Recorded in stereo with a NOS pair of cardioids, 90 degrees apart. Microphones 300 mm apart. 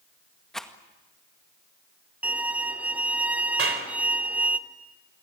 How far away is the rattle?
About 1.9 m.